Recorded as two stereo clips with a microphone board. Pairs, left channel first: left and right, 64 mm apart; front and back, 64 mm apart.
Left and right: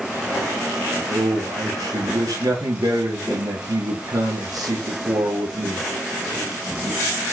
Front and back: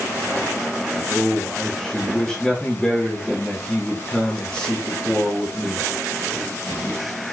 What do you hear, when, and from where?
1.1 s a man speaking: 80° right, 3 m